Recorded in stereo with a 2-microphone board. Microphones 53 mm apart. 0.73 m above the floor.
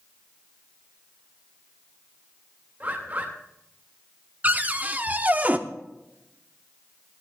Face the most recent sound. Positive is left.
turn(degrees=-30)  # may be behind; listen again after turning